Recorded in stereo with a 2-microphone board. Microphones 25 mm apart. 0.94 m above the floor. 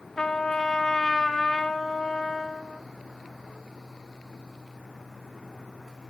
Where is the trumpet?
30° left (ahead or behind), 0.7 m.